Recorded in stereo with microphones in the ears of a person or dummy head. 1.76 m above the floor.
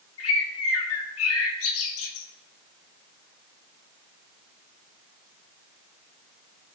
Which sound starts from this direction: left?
A bird, at 0.2 s.